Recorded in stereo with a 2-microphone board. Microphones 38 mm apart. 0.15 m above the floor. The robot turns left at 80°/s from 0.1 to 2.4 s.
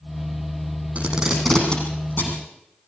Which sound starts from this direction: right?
Tape being pulled, at 0.9 s.